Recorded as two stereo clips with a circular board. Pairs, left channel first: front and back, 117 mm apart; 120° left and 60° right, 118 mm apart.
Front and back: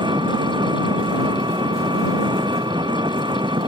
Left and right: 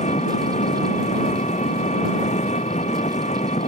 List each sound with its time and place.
0.0 s an engine running: 130° left